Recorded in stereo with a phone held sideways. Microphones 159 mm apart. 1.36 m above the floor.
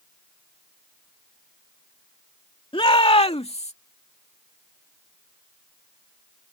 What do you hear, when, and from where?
2.7 s a shout: 35° left (ahead or behind); by 3.7 s 45° left (ahead or behind)